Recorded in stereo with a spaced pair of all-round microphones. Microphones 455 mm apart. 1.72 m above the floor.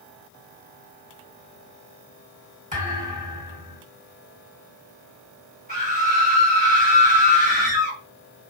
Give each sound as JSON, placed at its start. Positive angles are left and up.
{"t": 2.7, "sound": "a thud", "side_deg": -15, "distance_m": 1.8}
{"t": 5.7, "sound": "a scream", "side_deg": -20, "distance_m": 2.5}